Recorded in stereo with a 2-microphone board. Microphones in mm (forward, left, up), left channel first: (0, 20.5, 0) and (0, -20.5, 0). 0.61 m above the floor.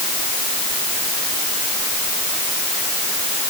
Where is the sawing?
I don't hear sawing.